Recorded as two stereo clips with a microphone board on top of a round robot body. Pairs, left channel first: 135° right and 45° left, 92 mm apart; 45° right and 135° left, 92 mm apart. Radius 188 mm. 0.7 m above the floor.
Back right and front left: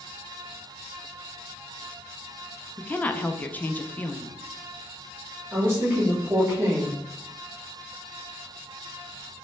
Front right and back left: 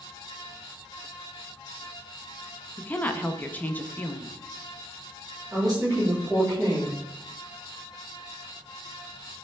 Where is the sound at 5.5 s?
100° left, 1.2 m.